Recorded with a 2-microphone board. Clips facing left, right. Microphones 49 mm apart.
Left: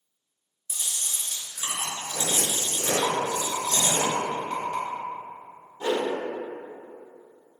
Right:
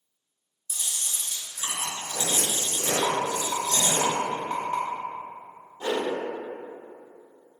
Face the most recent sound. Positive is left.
turn(degrees=25)  # may be behind; listen again after turning